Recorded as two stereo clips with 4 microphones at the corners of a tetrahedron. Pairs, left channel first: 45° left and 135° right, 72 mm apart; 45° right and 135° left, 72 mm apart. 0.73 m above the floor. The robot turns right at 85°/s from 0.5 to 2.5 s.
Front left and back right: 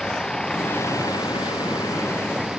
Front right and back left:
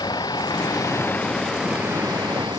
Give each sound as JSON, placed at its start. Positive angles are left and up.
{"t": 0.0, "sound": "a vehicle", "azimuth_deg": -35}